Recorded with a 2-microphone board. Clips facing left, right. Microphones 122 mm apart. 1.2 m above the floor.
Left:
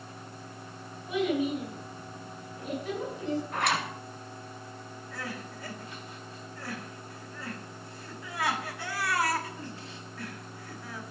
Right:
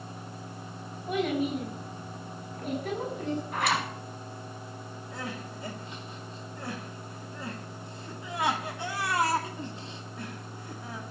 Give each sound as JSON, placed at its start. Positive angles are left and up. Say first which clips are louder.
{"t": 1.1, "sound": "a child speaking", "louder": "even", "side_deg": -55, "distance_m": 7.0}
{"t": 3.5, "sound": "a zipper", "louder": "right 3 dB", "side_deg": 0, "distance_m": 4.5}
{"t": 5.1, "sound": "crying", "louder": "right 1 dB", "side_deg": -25, "distance_m": 1.9}